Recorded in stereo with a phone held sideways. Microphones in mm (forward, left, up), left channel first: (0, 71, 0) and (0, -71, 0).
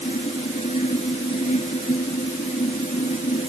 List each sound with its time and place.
0.0 s a fan: 60° left (ahead or behind)